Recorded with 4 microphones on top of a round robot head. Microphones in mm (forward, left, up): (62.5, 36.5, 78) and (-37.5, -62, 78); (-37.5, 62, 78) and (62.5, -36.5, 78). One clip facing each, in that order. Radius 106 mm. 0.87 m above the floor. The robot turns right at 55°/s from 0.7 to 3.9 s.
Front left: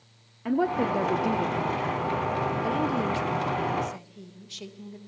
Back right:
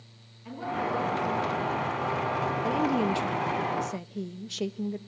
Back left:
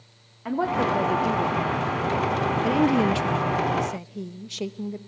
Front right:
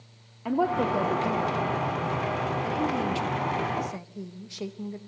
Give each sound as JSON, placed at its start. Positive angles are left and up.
{"t": 0.5, "sound": "a woman speaking", "azimuth_deg": 35, "distance_m": 1.7}
{"t": 2.6, "sound": "a woman speaking", "azimuth_deg": 130, "distance_m": 0.7}